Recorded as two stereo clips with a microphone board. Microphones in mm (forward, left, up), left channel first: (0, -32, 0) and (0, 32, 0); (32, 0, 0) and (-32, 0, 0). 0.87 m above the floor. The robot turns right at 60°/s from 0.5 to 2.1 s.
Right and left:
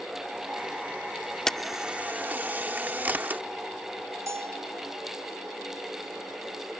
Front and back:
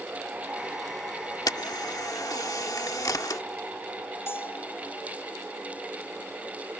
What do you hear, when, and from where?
1.5 s a camera shutter: 10° right; by 3.4 s 30° left
4.3 s a bell: 55° left